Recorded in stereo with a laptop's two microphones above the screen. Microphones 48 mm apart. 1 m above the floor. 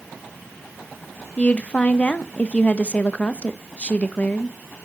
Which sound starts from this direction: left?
A woman speaking, at 1.4 s.